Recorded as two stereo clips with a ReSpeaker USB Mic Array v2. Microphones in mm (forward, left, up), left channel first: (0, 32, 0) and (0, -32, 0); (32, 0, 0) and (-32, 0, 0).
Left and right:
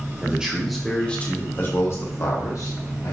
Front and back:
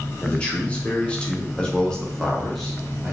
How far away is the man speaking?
About 0.8 m.